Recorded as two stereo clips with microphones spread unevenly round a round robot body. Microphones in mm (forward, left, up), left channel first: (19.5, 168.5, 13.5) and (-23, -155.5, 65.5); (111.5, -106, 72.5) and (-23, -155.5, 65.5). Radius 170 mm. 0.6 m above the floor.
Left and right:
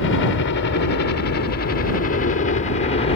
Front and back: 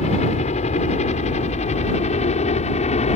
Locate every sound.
0.0 s a helicopter: 50° left; by 3.2 s 25° left